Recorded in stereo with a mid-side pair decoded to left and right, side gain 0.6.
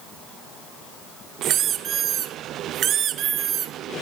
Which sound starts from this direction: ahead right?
A squeak, at 1.4 s.